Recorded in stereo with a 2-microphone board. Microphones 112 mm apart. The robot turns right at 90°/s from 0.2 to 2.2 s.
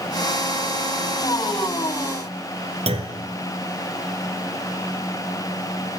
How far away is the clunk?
About 1.1 m.